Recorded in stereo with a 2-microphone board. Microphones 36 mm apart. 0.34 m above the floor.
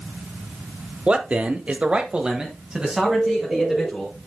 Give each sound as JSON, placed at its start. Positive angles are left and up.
{"t": 1.1, "sound": "a man speaking", "side_deg": -35, "distance_m": 1.1}
{"t": 3.0, "sound": "a bird", "side_deg": -35, "distance_m": 0.9}